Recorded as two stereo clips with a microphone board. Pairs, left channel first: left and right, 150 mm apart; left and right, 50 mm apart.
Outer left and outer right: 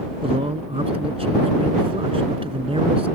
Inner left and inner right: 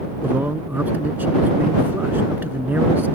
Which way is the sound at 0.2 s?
40° right (ahead or behind).